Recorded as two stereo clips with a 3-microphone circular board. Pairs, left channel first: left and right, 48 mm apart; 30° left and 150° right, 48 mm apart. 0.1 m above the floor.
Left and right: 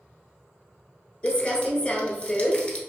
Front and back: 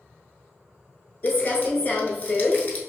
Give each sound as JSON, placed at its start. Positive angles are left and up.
{"t": 1.2, "sound": "crumpling", "azimuth_deg": 50, "distance_m": 0.9}